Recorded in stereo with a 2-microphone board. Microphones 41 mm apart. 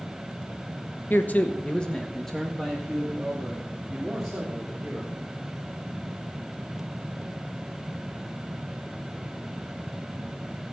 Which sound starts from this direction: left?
A man speaking, at 1.1 s.